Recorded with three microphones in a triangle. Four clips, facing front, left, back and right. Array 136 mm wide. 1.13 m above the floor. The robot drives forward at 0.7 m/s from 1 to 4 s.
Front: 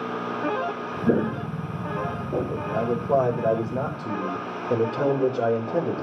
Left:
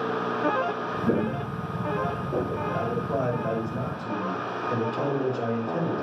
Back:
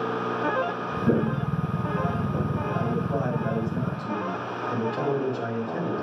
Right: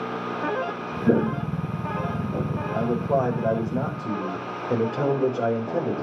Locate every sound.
1.1 s footsteps: 65° right, 1.1 m; by 2.6 s 30° left, 1.8 m
2.7 s a man speaking: 25° right, 4.5 m; by 6.0 s 35° right, 4 m